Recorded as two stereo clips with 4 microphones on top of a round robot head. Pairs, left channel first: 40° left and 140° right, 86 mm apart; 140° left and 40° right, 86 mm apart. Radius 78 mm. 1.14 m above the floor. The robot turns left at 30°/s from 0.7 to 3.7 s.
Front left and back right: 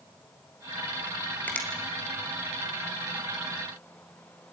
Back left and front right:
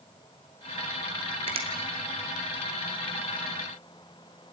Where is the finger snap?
35° right, 2.5 m; by 1.7 s 40° right, 2.5 m.